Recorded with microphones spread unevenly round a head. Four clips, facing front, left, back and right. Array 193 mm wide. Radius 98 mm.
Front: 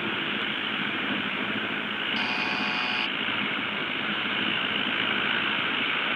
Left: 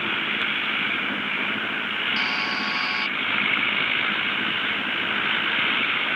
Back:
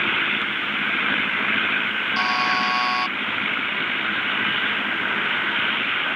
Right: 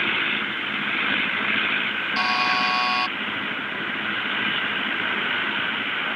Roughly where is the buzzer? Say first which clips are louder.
Right 9 dB, back 10 dB; behind right.